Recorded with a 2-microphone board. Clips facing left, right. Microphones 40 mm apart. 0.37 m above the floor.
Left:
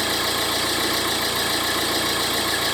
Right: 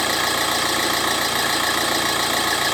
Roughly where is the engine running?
Right.